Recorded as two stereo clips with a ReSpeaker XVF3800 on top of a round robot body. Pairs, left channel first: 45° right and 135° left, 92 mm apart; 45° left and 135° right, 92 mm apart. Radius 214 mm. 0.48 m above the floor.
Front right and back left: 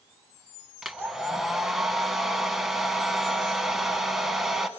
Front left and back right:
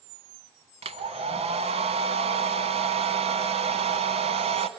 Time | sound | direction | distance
0.8 | a hair dryer | 140° right | 0.9 m